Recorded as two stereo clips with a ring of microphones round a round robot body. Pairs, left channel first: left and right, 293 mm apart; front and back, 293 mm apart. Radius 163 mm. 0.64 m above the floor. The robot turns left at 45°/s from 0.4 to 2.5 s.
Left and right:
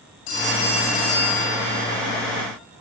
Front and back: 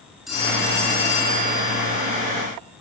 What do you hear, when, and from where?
0.3 s a phone ringing: 90° left, 6 m; by 2.2 s 10° left, 6 m